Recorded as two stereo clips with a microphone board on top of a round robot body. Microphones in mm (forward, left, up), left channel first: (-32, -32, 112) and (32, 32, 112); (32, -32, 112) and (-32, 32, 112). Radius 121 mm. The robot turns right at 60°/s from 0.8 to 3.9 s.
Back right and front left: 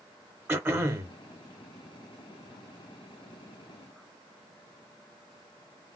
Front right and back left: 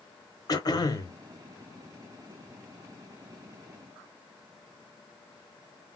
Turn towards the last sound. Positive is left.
turn(degrees=170)